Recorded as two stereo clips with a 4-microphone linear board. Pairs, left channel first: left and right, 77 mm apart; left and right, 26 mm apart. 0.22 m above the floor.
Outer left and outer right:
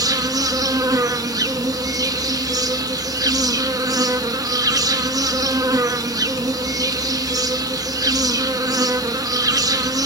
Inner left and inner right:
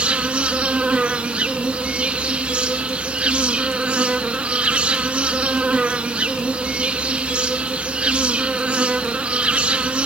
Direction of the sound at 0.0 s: 50° right (ahead or behind).